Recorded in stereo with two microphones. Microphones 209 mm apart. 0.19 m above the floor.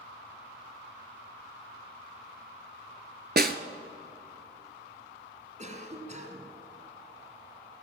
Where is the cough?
35° right (ahead or behind), 2 m.